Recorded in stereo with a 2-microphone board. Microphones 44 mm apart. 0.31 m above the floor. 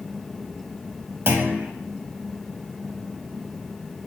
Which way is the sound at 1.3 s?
55° right (ahead or behind).